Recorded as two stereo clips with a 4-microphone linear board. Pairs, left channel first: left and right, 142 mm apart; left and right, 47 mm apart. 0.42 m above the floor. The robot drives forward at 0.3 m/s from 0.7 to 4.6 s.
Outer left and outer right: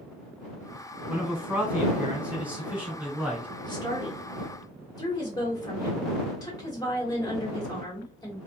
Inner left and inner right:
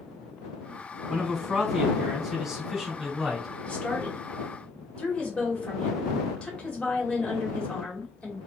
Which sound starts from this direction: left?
A woman speaking, at 3.6 s.